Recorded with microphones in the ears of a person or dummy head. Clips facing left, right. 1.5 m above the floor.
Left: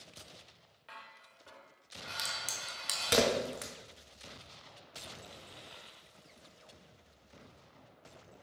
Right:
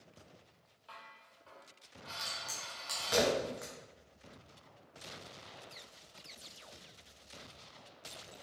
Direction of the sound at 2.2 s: 35° left (ahead or behind).